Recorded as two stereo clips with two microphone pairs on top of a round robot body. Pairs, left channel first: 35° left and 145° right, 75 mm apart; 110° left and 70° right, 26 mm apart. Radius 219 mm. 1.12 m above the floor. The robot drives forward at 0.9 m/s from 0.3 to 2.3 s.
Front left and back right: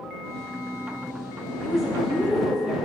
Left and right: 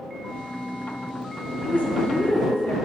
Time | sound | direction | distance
1.6 | a woman speaking | 125° left | 1.9 m